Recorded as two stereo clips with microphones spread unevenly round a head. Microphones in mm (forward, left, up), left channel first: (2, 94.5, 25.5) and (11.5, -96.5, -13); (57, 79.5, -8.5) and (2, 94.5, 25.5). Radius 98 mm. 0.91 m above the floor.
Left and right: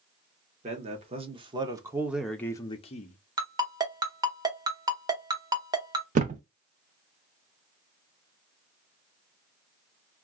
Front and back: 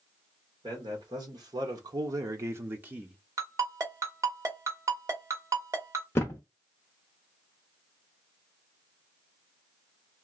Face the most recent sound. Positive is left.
turn(degrees=-110)